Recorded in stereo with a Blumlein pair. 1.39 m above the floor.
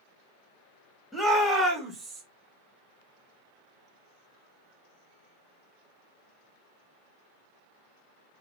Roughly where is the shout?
Ahead.